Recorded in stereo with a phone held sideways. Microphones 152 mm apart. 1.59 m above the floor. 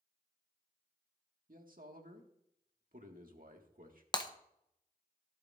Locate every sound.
1.5 s a man speaking: 65° right (ahead or behind), 1.6 m
4.1 s breaking glass: 30° left (ahead or behind), 0.7 m